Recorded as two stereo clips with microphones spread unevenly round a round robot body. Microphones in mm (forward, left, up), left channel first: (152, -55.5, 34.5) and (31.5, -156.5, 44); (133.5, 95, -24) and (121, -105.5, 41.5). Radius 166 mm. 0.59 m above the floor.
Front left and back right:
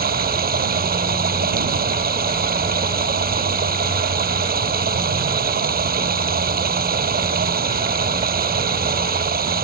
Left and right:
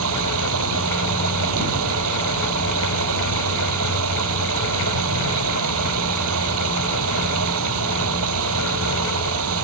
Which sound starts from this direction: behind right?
Running water, at 0.0 s.